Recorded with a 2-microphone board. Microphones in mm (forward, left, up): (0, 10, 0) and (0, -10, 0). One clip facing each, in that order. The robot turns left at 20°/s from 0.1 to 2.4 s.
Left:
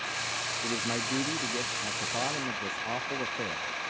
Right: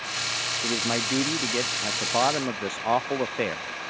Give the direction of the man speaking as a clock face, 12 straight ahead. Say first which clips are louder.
Right 6 dB; 1 o'clock.